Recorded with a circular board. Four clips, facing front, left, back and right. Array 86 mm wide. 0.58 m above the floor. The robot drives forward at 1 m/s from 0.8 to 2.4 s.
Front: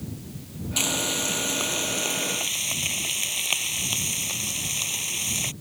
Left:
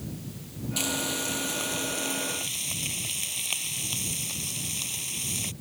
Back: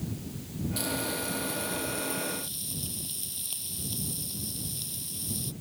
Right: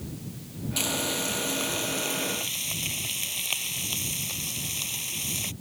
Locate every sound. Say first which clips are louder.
0.8 s frying: right 1 dB, front 5 dB; 5° right